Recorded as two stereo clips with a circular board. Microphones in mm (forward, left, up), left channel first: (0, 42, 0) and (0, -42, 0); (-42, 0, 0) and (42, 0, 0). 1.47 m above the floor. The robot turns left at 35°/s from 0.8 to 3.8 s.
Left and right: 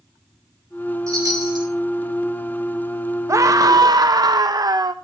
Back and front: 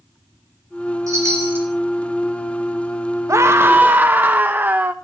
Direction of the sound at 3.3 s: 45° right.